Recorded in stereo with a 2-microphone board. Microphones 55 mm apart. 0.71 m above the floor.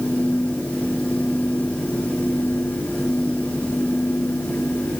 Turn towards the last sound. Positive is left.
No sound to turn to.